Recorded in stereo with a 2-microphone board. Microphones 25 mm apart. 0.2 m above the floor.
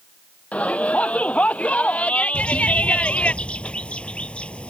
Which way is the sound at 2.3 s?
55° left (ahead or behind).